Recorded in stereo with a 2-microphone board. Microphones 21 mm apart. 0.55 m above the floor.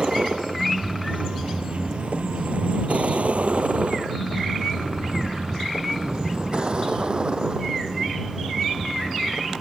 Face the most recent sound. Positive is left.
turn(degrees=-35)  # may be behind; listen again after turning